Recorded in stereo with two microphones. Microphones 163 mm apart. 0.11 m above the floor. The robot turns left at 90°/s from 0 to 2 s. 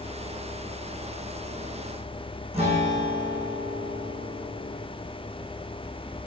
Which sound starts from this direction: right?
A guitar, at 2.5 s.